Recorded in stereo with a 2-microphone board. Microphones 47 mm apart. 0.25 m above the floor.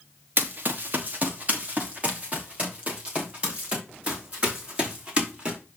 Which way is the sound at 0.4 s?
45° right (ahead or behind).